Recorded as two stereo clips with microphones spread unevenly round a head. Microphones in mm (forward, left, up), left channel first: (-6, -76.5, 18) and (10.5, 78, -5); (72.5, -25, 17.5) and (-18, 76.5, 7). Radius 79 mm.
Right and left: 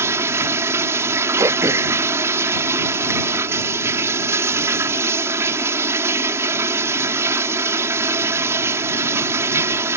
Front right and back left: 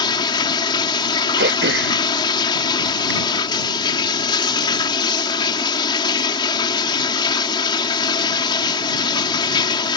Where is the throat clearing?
160° left.